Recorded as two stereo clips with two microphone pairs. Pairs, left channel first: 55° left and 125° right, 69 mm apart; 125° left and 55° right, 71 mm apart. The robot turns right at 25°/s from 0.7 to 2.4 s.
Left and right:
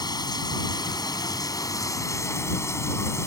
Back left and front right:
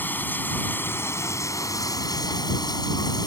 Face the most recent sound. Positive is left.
turn(degrees=105)